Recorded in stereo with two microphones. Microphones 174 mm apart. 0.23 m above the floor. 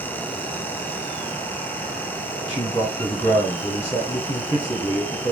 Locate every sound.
2.5 s a man speaking: 25° left (ahead or behind), 1.6 m